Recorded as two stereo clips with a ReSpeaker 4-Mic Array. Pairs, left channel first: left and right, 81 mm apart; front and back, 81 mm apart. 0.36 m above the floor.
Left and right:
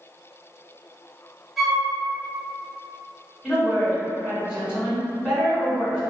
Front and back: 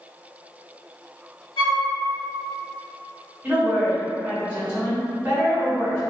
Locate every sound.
1.6 s a flute: straight ahead, 0.7 m
3.4 s a woman speaking: 155° right, 1.4 m